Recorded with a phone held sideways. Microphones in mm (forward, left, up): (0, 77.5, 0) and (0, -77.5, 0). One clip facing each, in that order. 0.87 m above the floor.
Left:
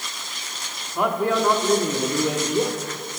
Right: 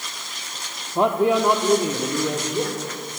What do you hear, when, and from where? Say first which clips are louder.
0.9 s a man speaking: right 3 dB; 30° right (ahead or behind), 1.5 m; by 2.9 s 15° left (ahead or behind), 2.5 m